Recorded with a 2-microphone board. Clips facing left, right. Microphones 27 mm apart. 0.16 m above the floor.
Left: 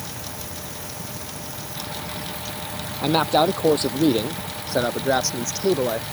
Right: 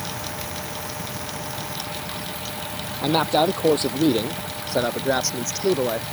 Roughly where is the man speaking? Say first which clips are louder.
Left 1 dB; left.